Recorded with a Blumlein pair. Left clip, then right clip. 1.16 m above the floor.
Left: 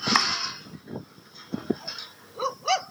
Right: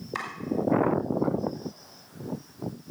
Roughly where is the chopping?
Ahead left.